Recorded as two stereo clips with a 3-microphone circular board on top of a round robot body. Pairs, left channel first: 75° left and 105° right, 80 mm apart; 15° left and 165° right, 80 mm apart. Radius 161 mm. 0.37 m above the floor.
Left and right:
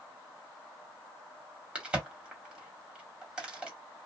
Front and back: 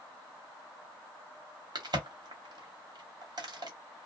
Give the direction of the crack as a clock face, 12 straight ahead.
6 o'clock.